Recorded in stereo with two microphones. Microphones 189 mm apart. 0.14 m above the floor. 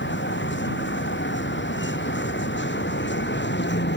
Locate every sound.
0.0 s a vehicle: 90° left; by 4.0 s 75° left (ahead or behind)